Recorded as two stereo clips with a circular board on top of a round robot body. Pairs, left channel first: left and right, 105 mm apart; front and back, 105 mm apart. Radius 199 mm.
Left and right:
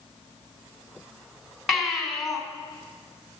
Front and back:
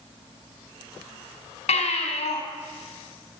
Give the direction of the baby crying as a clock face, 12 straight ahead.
12 o'clock.